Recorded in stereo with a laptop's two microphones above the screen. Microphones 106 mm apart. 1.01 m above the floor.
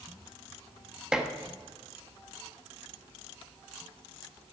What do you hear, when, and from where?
1.1 s dishes clattering: 5° right (ahead or behind), 0.8 m